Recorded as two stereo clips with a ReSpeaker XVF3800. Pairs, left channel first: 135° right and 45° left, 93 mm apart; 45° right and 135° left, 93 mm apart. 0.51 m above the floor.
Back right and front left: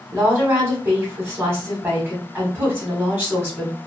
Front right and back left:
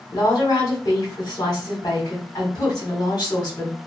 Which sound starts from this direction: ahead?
A woman speaking, at 0.1 s.